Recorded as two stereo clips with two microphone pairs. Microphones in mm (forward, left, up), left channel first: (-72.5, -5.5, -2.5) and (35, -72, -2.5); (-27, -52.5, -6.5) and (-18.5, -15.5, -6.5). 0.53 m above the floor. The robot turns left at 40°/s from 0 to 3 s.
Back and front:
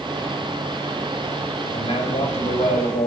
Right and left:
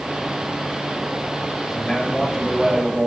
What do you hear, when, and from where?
1.6 s a man speaking: 165° right, 1.8 m; by 3.1 s 140° left, 1.8 m